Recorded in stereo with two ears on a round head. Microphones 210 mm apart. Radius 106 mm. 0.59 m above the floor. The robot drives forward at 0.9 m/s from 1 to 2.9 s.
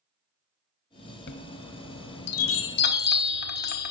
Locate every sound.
1.3 s a chime: 45° left (ahead or behind), 1.0 m; by 3.9 s 40° left (ahead or behind), 1.1 m